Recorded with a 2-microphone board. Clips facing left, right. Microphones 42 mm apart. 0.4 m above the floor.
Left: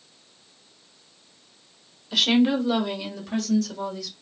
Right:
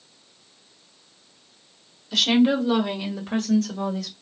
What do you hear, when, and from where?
2.1 s a woman speaking: 10° left (ahead or behind), 1.2 m; by 4.1 s 45° right (ahead or behind), 1.8 m